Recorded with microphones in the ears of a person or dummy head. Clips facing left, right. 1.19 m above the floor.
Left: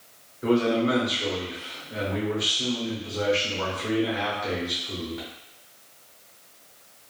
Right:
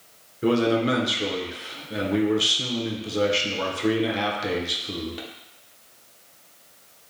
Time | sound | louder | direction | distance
0.4 | a man speaking | right 1 dB | 40° right (ahead or behind) | 0.9 m